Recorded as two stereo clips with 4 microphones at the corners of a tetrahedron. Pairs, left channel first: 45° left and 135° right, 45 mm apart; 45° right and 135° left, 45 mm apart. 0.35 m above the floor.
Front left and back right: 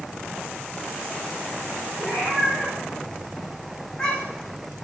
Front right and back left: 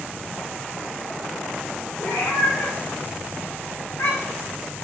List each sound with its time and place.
2.0 s a cat meowing: 35° right, 6 m; by 4.5 s 25° right, 4 m